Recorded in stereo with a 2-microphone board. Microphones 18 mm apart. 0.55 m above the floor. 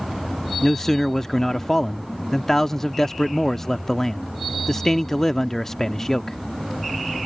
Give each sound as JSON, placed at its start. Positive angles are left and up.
{"t": 0.6, "sound": "a man speaking", "side_deg": 20}